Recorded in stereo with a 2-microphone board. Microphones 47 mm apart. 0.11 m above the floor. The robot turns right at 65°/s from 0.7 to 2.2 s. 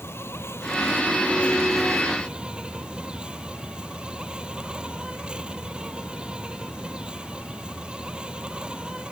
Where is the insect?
105° left; by 9.1 s 160° right.